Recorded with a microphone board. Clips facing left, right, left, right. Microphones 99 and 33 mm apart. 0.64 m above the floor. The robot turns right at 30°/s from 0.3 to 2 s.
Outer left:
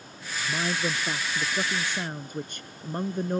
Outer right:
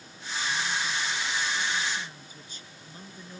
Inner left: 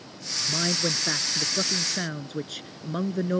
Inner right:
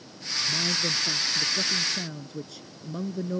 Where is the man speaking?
65° left; by 3.4 s 115° left.